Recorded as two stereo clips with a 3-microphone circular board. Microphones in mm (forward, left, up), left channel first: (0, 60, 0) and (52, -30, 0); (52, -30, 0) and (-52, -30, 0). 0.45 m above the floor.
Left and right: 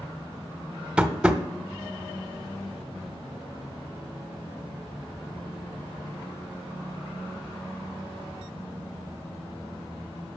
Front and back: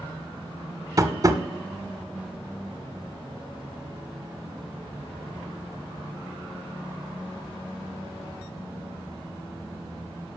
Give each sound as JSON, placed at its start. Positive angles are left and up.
{"t": 1.0, "sound": "tapping", "azimuth_deg": -140, "distance_m": 0.9}